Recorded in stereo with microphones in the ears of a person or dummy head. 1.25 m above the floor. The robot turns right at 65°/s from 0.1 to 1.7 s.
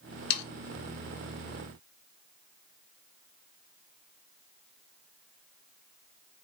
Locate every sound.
0.3 s sawing: 50° left (ahead or behind), 0.7 m; by 0.4 s 55° left (ahead or behind), 0.7 m